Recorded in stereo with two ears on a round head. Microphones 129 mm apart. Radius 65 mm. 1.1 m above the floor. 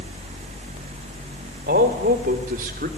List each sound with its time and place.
1.7 s a man speaking: 65° right (ahead or behind), 3 m; by 2.9 s 60° right (ahead or behind), 2.5 m